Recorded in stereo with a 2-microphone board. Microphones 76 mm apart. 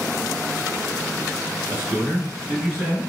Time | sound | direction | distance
1.7 | a man speaking | 25° right (ahead or behind) | 1.8 m